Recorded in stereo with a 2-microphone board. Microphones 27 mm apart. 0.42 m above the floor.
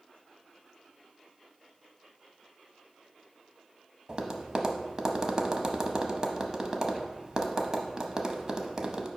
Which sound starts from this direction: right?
Tapping, at 4.1 s.